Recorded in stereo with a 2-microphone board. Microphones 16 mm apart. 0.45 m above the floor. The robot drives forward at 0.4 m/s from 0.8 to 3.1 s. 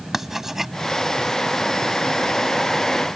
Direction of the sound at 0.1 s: 20° right (ahead or behind).